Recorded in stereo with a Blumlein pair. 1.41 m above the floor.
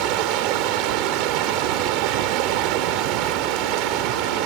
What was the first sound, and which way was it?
Running water, 40° right.